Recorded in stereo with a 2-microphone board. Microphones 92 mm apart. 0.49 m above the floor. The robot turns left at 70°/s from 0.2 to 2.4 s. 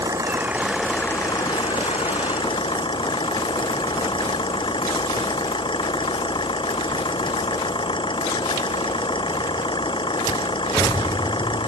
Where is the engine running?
140° right; by 11.7 s 65° left.